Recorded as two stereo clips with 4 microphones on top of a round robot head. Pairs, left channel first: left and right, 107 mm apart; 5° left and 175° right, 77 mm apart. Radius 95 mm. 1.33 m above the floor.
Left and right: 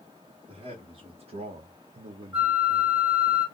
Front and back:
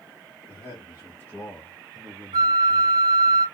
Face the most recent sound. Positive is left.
turn(degrees=-170)